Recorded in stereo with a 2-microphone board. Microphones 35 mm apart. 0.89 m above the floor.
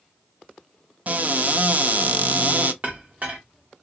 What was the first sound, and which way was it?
A cupboard door, 45° right (ahead or behind).